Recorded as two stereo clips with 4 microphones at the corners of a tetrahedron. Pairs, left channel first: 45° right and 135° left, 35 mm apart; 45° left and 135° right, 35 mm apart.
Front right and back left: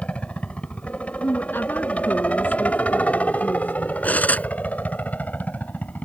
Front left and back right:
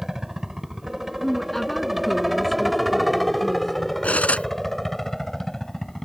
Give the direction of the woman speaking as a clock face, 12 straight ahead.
1 o'clock.